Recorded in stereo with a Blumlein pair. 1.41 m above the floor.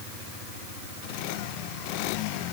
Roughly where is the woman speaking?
I don't hear a woman speaking.